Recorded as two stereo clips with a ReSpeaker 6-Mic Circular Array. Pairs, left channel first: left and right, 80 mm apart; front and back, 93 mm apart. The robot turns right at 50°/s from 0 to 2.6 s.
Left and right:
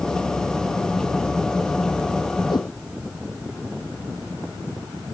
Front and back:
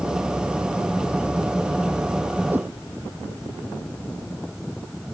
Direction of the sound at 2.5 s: 110° left.